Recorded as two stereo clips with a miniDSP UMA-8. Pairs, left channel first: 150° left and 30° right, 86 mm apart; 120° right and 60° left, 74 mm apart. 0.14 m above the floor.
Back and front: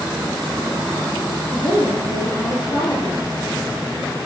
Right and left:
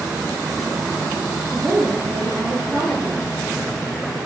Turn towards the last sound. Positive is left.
turn(degrees=150)